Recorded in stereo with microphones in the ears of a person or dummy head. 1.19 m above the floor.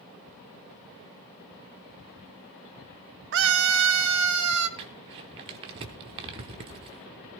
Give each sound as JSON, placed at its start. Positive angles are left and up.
{"t": 3.3, "sound": "a scream", "side_deg": -55, "distance_m": 0.8}
{"t": 4.8, "sound": "crumpling", "side_deg": -25, "distance_m": 0.8}